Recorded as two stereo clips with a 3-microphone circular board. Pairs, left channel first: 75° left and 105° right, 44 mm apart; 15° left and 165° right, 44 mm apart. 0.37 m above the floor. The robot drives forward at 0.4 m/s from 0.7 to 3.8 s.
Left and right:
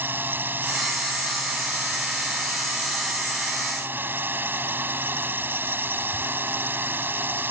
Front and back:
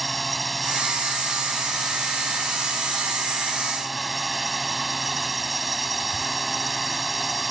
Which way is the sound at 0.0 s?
75° right.